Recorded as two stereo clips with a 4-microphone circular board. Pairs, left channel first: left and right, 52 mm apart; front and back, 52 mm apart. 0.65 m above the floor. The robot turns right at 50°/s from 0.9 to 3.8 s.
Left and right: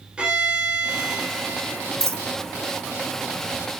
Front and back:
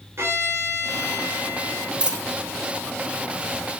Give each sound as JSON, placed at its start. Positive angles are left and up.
{"t": 0.2, "sound": "a violin", "azimuth_deg": -160, "distance_m": 3.0}
{"t": 2.0, "sound": "a dropped coin", "azimuth_deg": -110, "distance_m": 0.9}